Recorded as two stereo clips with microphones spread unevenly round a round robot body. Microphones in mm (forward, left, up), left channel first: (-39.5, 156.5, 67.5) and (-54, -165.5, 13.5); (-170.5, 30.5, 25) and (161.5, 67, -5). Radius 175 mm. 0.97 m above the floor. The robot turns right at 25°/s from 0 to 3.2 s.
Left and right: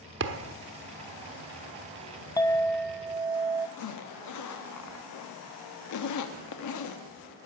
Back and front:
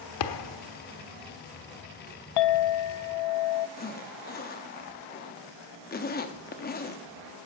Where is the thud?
150° right, 0.9 m; by 0.6 s 140° right, 0.9 m.